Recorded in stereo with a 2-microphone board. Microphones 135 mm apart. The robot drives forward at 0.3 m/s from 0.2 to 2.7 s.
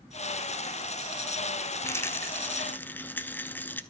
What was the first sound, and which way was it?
A rattle, 20° left (ahead or behind).